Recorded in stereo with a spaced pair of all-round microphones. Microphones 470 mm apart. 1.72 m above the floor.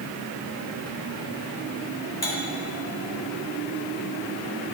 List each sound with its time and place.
2.2 s cutlery clinking: 50° left (ahead or behind), 1.7 m